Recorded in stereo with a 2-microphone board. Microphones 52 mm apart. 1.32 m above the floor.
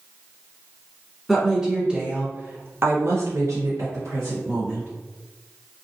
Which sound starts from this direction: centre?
A woman speaking, at 1.3 s.